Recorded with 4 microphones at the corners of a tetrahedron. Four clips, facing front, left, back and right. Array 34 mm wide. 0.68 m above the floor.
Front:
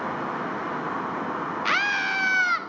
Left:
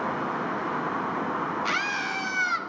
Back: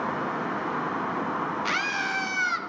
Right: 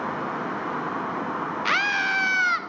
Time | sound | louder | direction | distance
1.6 | a scream | right 9 dB, front 6 dB | 50° right | 1.0 m